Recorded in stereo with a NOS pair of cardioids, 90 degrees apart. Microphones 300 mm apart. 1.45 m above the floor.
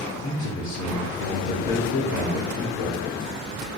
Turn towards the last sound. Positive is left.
turn(degrees=60)